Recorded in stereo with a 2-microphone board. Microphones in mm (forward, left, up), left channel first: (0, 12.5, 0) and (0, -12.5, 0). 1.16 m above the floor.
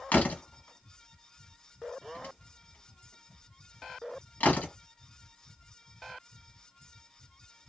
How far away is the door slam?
About 0.8 m.